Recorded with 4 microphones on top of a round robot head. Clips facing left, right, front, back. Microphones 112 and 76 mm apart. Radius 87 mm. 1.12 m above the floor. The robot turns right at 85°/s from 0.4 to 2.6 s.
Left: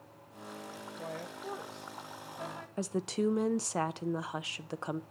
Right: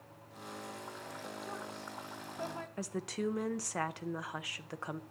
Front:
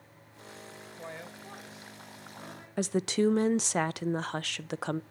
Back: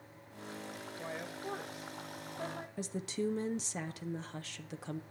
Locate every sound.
1.0 s a woman speaking: 85° left, 1.4 m; by 2.7 s 135° right, 1.4 m
2.8 s a woman speaking: 20° left, 0.5 m